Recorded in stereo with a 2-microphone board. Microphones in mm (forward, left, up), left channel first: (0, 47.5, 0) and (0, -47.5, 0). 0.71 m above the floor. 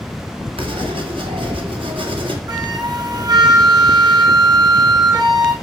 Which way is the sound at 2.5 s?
45° right (ahead or behind).